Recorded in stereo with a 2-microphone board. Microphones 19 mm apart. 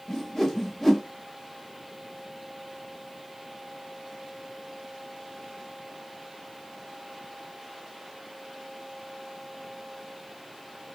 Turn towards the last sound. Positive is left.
turn(degrees=15)  # may be behind; listen again after turning